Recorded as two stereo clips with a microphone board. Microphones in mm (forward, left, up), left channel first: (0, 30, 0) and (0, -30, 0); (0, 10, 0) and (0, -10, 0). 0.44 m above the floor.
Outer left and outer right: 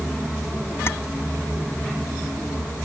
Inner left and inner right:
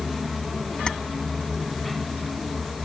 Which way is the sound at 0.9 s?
45° left (ahead or behind).